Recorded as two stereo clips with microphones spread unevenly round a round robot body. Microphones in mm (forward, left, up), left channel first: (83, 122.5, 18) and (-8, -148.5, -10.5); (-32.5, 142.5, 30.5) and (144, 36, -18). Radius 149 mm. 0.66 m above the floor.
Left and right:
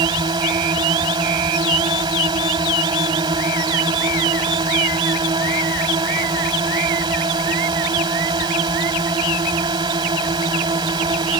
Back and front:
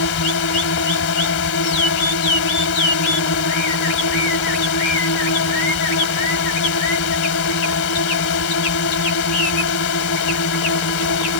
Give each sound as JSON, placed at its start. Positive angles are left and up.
{"t": 0.0, "sound": "a drone", "azimuth_deg": 175}